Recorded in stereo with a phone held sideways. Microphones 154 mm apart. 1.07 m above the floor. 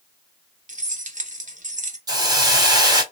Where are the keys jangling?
55° right (ahead or behind), 0.8 m.